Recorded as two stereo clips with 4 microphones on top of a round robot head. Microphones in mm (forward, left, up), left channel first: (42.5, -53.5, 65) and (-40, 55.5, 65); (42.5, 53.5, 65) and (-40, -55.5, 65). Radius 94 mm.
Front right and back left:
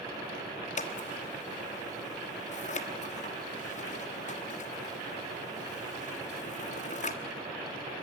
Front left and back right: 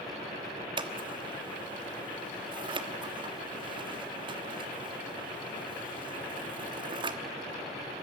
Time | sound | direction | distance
0.8 | scissors | 75° right | 1.4 m